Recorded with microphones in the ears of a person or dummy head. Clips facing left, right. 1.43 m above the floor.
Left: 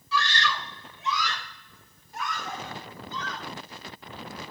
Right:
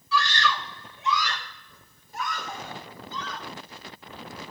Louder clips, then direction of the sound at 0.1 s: Right 2 dB; 90° right.